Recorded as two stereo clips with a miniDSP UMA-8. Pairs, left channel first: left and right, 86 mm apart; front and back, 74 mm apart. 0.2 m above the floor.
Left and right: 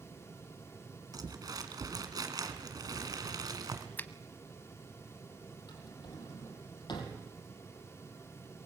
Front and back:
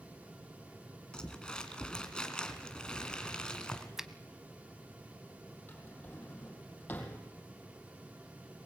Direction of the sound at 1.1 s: 75° right.